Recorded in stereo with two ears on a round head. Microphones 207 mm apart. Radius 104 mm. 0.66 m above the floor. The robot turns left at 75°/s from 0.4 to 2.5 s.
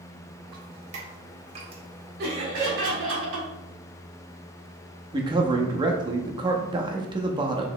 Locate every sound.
0.5 s dripping: 20° right (ahead or behind), 1.2 m; by 2.1 s 10° right (ahead or behind), 1.2 m
2.2 s laughter: 45° right (ahead or behind), 1.9 m; by 3.5 s 60° right (ahead or behind), 1.9 m
5.1 s a man speaking: 20° right (ahead or behind), 0.7 m